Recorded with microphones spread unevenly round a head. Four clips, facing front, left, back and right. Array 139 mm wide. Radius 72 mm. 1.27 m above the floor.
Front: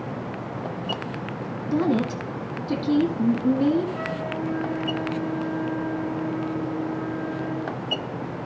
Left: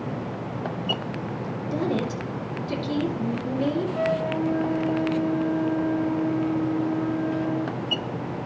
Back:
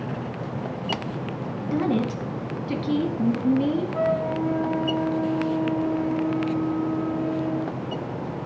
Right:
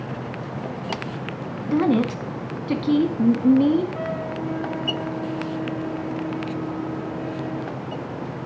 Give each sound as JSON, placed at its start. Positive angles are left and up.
{"t": 1.7, "sound": "a woman speaking", "azimuth_deg": -65, "distance_m": 1.7}
{"t": 3.9, "sound": "a flute", "azimuth_deg": 175, "distance_m": 1.4}